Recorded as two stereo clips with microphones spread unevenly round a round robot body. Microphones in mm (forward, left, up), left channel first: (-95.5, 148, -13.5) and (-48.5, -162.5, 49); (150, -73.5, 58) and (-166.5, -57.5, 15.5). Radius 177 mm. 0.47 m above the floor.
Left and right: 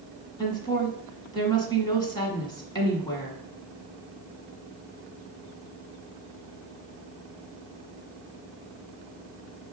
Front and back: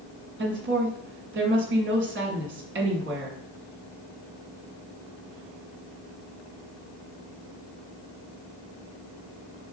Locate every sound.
0.4 s a woman speaking: 155° left, 1.4 m